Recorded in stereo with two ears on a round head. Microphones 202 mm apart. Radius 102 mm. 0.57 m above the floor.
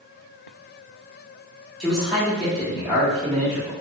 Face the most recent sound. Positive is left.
turn(degrees=0)  # may be behind; listen again after turning